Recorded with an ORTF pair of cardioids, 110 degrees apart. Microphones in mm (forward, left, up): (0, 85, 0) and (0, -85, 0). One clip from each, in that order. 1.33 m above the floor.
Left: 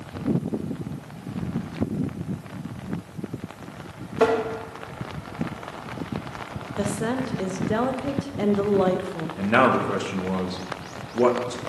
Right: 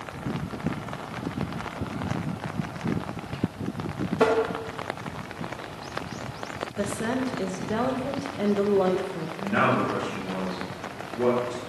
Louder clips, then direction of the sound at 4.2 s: Left 1 dB; 5° left.